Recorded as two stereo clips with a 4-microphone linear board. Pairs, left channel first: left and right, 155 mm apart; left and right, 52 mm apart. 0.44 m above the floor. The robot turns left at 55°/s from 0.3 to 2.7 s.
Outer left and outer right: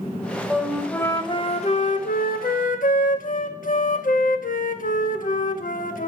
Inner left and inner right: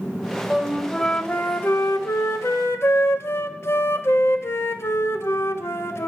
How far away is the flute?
About 0.5 m.